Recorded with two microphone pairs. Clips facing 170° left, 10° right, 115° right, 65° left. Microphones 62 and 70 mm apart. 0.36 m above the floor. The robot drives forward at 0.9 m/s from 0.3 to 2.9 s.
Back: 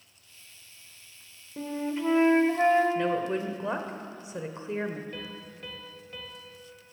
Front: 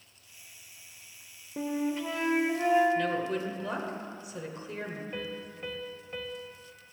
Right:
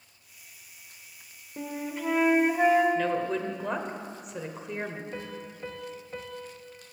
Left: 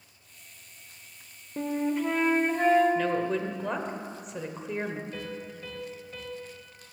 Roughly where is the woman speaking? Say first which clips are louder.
Back 2 dB, even; behind left.